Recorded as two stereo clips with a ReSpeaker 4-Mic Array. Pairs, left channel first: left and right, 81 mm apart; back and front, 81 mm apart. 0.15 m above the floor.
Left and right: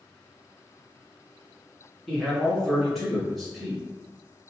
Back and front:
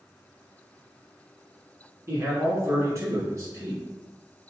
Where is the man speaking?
5° left, 1.3 m.